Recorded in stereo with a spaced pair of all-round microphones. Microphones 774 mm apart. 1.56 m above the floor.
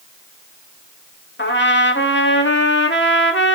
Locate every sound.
1.4 s a trumpet: 15° left (ahead or behind), 1.6 m